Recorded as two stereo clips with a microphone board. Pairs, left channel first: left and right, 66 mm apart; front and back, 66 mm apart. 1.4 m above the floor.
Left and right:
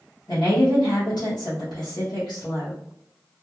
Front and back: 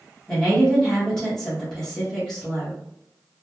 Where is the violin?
I don't hear a violin.